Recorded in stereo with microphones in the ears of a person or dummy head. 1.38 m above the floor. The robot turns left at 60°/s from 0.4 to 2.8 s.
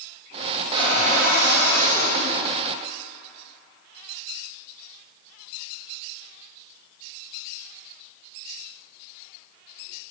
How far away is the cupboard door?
About 2 m.